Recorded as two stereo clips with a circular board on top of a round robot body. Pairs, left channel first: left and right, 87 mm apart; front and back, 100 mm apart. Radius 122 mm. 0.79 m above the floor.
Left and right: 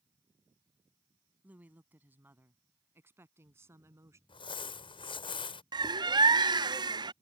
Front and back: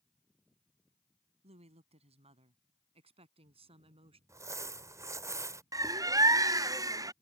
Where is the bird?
125° right.